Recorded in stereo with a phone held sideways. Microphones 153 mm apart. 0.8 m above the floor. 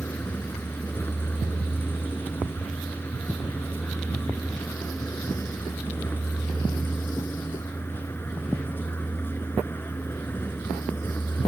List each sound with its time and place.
0.0 s a vehicle: 15° left (ahead or behind)